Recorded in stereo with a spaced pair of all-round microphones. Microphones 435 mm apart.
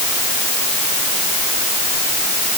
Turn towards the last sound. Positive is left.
No sound to turn to.